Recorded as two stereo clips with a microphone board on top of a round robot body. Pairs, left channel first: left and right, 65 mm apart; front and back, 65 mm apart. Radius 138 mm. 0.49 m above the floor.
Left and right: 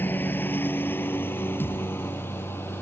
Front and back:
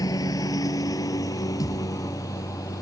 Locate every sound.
0.0 s a lawn mower: 30° left; by 2.8 s 35° left
1.6 s a thud: 35° left